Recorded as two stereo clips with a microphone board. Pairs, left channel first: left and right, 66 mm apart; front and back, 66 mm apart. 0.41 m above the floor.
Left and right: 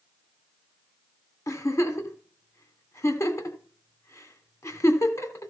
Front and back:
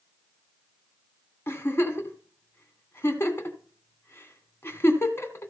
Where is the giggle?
50° left, 2.5 m.